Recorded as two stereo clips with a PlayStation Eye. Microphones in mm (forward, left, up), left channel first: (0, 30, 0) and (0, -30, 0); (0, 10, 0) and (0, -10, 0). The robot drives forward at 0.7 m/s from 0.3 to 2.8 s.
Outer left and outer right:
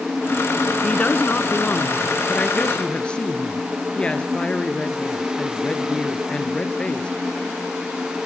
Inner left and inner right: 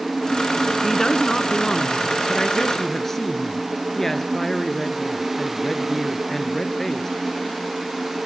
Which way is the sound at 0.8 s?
25° left (ahead or behind).